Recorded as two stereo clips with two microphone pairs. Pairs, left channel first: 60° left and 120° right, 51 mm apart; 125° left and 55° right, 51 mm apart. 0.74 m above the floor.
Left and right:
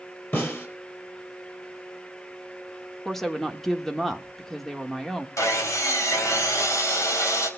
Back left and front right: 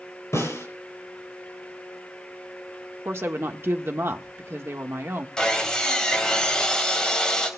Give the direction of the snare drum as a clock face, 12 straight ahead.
8 o'clock.